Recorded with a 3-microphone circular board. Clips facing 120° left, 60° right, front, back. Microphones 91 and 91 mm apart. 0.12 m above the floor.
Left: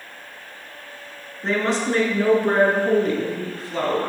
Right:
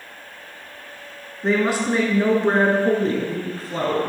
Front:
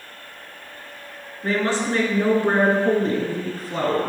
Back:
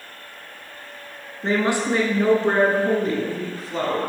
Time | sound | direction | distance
1.4 | a woman speaking | 145° right | 1.5 m